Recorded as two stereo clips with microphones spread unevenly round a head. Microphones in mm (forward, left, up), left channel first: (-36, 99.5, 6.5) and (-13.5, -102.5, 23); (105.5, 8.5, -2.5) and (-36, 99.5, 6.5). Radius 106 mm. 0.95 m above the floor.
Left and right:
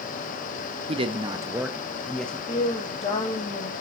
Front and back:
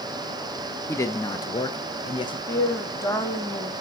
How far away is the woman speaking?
About 2 m.